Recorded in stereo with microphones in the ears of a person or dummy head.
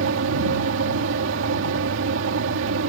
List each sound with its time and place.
0.0 s a fan: 70° right (ahead or behind)